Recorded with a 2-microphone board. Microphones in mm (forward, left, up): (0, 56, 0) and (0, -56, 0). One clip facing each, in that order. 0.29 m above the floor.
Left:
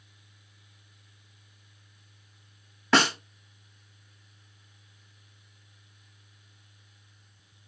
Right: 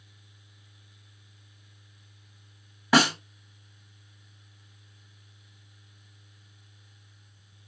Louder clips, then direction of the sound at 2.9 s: Right 2 dB; 5° right (ahead or behind).